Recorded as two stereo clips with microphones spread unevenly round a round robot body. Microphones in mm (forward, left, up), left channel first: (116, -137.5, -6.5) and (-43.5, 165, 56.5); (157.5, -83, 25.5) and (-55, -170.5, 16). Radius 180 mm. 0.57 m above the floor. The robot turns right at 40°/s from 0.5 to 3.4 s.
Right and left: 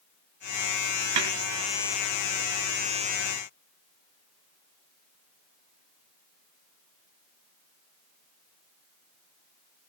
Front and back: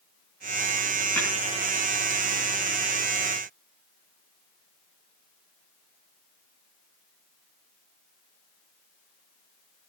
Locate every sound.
1.2 s a snare drum: 105° left, 4 m; by 1.3 s 115° left, 4 m